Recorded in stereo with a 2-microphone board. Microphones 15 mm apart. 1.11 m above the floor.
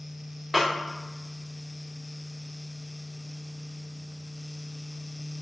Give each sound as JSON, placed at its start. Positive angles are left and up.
{"t": 0.5, "sound": "a snare drum", "side_deg": 0, "distance_m": 1.1}